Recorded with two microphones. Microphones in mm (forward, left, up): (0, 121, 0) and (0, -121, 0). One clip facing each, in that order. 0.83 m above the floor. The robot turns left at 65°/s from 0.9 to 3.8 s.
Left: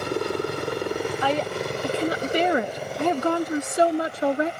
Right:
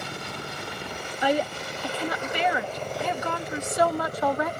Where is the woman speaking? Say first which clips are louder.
Left 1 dB; 160° right; by 4.5 s 30° left.